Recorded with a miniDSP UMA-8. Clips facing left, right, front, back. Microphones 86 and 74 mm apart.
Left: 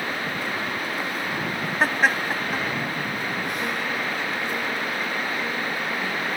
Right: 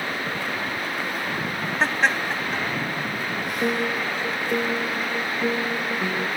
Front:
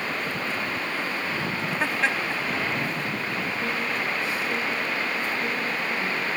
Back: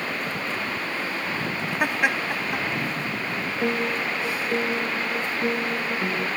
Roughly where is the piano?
Behind right.